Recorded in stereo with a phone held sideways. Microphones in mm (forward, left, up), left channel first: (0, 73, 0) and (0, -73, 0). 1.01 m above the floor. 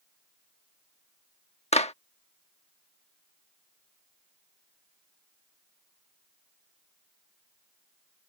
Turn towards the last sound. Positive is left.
turn(degrees=50)  # may be behind; listen again after turning